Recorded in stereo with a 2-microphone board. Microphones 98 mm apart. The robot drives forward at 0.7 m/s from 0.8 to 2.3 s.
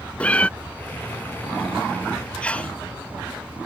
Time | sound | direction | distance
0.2 | a cat meowing | 15° left (ahead or behind) | ?
2.4 | a sneeze | 15° left (ahead or behind) | ?